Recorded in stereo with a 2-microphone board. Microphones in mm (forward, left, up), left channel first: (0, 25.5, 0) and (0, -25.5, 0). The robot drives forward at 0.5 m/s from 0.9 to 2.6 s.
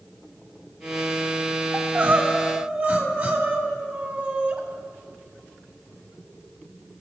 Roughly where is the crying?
Right.